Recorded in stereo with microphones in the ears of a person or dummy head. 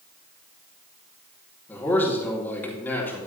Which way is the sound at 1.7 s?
10° left (ahead or behind).